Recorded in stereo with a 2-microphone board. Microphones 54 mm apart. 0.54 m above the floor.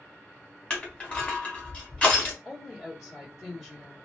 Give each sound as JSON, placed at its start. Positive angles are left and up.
{"t": 0.7, "sound": "crushing", "side_deg": 20, "distance_m": 1.1}
{"t": 2.5, "sound": "a woman speaking", "side_deg": -10, "distance_m": 1.7}